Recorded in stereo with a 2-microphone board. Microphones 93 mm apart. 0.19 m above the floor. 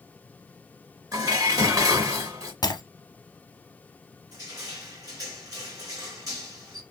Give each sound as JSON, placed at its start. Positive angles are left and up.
{"t": 1.1, "sound": "dishes clattering", "side_deg": -35, "distance_m": 1.2}
{"t": 2.6, "sound": "breaking glass", "side_deg": 45, "distance_m": 0.9}
{"t": 4.3, "sound": "crushing", "side_deg": -35, "distance_m": 2.5}